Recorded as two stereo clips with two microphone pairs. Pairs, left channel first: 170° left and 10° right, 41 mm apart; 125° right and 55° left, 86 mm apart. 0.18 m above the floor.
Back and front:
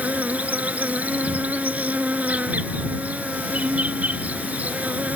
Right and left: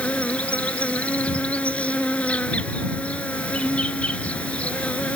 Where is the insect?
50° right.